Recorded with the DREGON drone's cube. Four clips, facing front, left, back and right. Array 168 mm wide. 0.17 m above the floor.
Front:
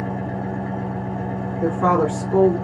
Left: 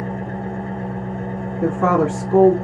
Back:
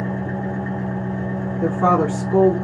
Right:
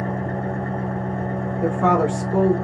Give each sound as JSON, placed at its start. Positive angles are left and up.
{"t": 0.0, "sound": "an engine running", "azimuth_deg": -120, "distance_m": 1.6}
{"t": 1.6, "sound": "a woman speaking", "azimuth_deg": 125, "distance_m": 1.1}